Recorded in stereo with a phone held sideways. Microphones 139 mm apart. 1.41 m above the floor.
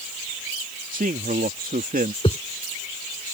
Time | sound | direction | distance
0.9 | a man speaking | 75° right (ahead or behind) | ?
2.2 | a whoosh | 40° left (ahead or behind) | ?